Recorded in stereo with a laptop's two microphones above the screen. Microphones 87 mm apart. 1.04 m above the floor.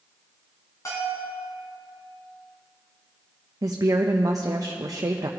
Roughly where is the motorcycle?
I don't hear a motorcycle.